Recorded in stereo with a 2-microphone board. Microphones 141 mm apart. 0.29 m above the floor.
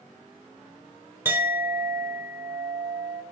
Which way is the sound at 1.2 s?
15° right (ahead or behind).